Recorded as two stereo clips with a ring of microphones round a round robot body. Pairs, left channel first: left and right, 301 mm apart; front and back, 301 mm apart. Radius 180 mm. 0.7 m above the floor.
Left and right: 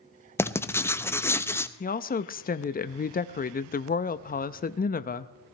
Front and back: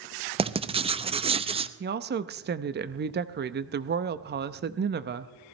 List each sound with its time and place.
0.4 s writing: 155° left, 0.8 m
1.8 s a woman speaking: 140° left, 0.6 m